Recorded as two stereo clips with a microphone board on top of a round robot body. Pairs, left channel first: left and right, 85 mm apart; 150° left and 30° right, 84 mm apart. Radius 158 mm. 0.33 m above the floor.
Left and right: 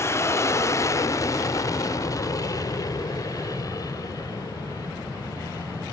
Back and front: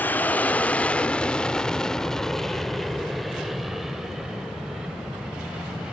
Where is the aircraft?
100° left; by 5.9 s 50° left.